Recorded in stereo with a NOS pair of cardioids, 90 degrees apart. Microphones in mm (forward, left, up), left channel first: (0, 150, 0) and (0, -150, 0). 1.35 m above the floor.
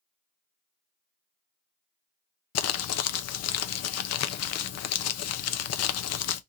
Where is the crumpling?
55° left, 0.6 m.